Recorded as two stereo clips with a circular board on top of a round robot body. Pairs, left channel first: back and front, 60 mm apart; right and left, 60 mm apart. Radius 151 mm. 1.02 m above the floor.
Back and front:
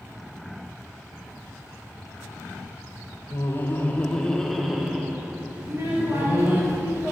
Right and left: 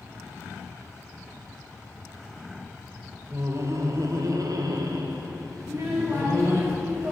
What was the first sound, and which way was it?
Laughter, 130° left.